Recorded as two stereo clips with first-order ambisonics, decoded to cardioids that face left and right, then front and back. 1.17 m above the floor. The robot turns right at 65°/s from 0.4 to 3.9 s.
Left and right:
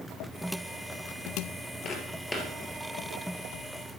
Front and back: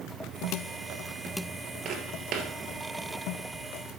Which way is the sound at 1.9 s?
130° left.